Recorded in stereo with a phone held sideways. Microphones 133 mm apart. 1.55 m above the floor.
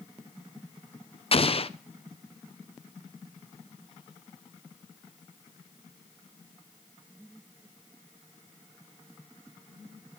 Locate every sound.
1.3 s an explosion: 45° left (ahead or behind), 0.7 m